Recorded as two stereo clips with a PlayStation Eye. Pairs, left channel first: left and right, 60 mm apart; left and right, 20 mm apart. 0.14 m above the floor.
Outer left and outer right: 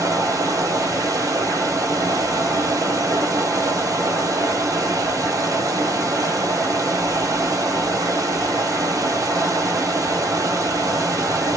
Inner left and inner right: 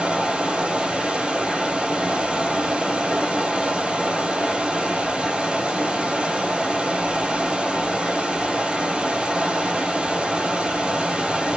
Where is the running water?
75° right (ahead or behind), 0.7 m.